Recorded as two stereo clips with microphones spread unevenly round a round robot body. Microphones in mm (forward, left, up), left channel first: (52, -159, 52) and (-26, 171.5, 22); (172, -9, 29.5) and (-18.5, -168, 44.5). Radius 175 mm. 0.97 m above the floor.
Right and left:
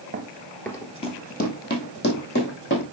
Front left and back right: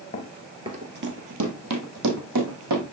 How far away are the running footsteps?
About 1.0 m.